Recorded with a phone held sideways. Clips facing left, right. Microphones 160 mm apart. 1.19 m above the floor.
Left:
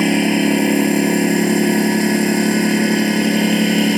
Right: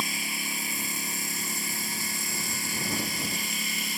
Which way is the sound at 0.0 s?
80° left.